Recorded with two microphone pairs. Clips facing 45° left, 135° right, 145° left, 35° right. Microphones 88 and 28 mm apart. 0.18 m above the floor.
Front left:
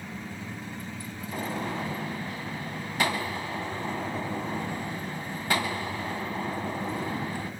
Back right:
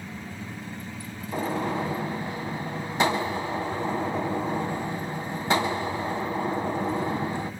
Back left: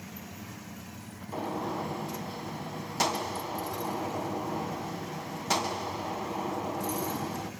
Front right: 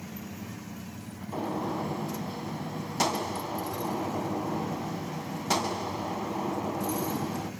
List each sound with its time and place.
1.3 s a gunshot: 135° right, 1.0 m